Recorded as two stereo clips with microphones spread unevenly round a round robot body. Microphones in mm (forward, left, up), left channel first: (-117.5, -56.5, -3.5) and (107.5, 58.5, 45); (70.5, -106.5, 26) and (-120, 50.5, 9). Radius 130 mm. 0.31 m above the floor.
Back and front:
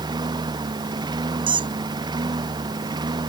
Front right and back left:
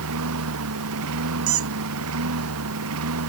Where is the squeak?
100° left.